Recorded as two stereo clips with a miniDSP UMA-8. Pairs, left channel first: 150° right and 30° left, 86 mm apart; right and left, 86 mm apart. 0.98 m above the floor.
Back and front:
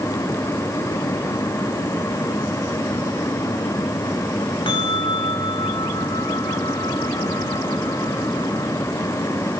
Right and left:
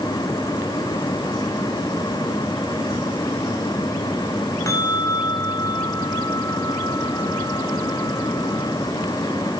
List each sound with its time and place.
4.7 s a bell: 140° right, 2 m